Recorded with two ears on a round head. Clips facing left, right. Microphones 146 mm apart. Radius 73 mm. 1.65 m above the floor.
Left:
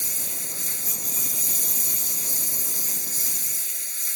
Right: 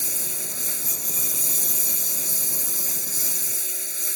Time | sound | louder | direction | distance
0.0 | a lawn mower | right 3 dB | 70° right (ahead or behind) | ?